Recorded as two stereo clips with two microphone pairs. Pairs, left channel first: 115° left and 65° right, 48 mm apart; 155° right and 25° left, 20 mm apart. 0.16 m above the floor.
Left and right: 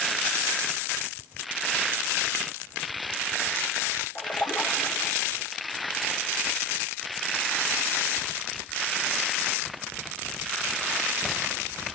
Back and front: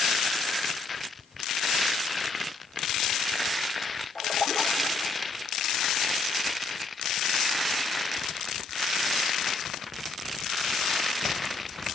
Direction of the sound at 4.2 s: 175° right.